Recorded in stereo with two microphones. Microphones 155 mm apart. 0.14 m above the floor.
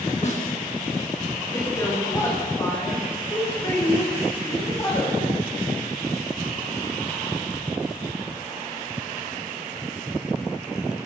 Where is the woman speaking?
20° left (ahead or behind), 10 m.